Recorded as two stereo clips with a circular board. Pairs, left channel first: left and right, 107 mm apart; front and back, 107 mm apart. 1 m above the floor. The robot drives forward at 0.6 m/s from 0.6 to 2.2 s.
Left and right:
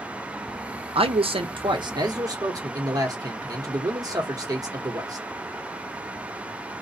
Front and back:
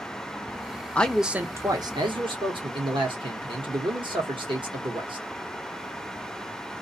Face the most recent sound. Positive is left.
turn(degrees=-145)